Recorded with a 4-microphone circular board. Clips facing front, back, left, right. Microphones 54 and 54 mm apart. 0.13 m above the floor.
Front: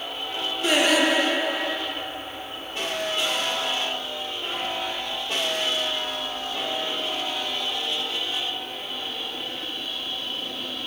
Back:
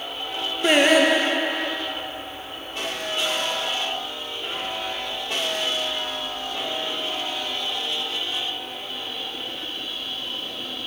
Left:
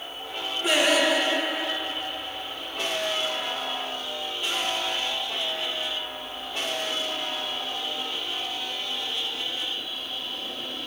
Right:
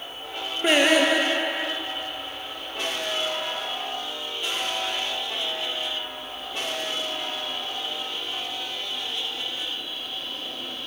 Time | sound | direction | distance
0.6 | singing | 135° right | 1.3 m